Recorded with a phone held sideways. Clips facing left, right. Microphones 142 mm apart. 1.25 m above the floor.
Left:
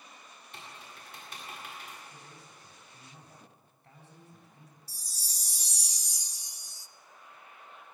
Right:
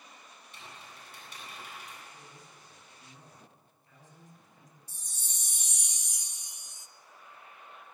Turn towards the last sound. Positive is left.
turn(degrees=35)  # may be behind; listen again after turning